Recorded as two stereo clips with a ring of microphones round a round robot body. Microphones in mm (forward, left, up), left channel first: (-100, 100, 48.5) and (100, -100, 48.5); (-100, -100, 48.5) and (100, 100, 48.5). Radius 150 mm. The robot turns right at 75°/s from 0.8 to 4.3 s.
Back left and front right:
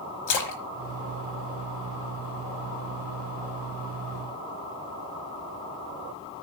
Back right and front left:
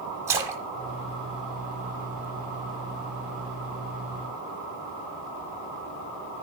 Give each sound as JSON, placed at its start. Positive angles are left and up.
{"t": 0.3, "sound": "a splash", "azimuth_deg": 125, "distance_m": 1.1}